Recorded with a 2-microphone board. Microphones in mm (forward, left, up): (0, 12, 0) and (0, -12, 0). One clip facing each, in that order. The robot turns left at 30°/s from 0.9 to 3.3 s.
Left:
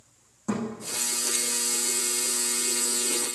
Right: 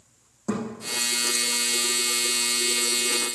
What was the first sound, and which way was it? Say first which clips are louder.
A thud: right 1 dB; 45° right (ahead or behind).